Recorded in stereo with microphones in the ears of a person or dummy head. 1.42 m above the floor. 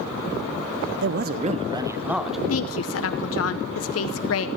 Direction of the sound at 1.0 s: 70° right (ahead or behind).